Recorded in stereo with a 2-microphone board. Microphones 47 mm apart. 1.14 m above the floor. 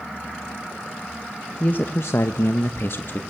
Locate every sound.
1.6 s a man speaking: 40° left (ahead or behind), 1.1 m; by 3.2 s 45° left (ahead or behind), 1.6 m